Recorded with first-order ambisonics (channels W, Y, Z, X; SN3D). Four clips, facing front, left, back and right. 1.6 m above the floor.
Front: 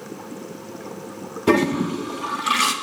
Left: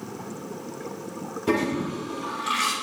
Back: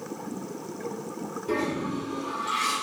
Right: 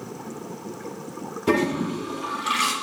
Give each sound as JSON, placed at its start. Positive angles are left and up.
{"t": 1.5, "sound": "a toilet flushing", "azimuth_deg": -10, "distance_m": 0.7}